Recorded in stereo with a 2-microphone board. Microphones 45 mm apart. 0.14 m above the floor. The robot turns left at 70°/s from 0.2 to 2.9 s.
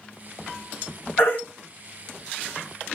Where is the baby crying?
65° left (ahead or behind), 3 m; by 1.4 s 50° left (ahead or behind), 3 m.